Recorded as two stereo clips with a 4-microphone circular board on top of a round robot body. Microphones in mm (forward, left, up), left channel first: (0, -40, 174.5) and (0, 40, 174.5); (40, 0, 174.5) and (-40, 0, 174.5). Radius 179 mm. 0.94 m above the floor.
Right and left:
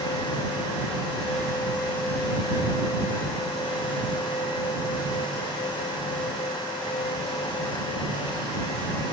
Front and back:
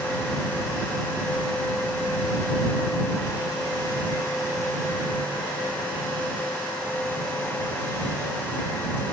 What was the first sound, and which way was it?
Only background noise.